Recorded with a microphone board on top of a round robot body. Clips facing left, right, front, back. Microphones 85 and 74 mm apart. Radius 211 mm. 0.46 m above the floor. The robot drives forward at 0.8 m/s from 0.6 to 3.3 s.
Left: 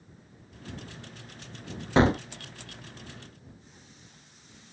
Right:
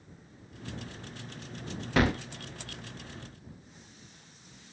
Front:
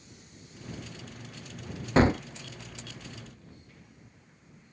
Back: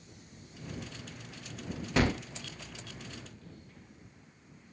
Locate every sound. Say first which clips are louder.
2.0 s a gunshot: left 5 dB, front 6 dB; 40° left; by 2.2 s 60° left